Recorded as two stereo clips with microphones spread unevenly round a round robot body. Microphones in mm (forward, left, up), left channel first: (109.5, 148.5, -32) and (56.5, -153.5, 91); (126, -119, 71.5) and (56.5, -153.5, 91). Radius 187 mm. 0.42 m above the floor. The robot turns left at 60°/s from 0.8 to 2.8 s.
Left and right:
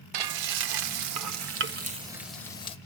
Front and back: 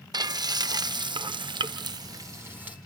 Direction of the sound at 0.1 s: 120° right.